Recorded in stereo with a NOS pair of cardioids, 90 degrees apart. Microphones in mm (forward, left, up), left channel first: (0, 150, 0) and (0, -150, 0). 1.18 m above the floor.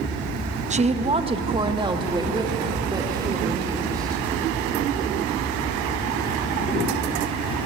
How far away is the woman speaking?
About 1.1 m.